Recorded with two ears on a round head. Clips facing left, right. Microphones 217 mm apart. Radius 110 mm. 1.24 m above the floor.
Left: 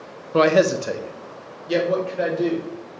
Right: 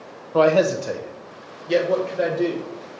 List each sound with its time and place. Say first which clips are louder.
0.3 s a man speaking: even; 25° left (ahead or behind), 0.7 m; by 2.7 s centre (ahead or behind), 2 m